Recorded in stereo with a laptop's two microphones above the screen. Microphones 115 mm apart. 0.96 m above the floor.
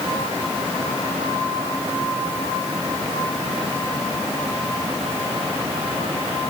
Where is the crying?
No crying in this recording.